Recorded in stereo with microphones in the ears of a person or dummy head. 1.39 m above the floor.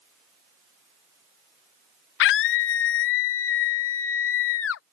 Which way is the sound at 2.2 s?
60° left (ahead or behind).